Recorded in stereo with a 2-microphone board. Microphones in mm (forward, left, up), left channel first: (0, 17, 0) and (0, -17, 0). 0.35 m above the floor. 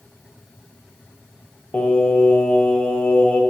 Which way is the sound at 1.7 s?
40° left (ahead or behind).